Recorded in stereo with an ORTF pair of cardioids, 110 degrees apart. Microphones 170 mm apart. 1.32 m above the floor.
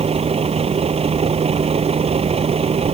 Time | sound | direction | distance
0.0 | a vehicle | 35° right | ?